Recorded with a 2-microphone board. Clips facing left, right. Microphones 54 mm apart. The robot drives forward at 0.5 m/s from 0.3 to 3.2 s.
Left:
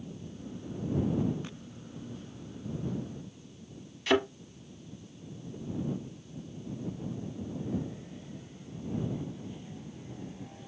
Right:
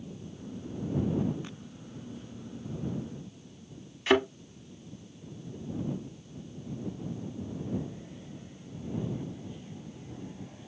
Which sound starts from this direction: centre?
A thud, at 4.1 s.